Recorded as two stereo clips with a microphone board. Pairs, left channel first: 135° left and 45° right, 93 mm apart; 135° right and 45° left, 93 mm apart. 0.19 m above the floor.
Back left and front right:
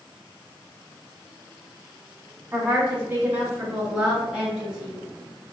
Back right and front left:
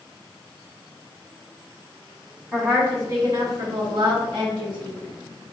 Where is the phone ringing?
I don't hear a phone ringing.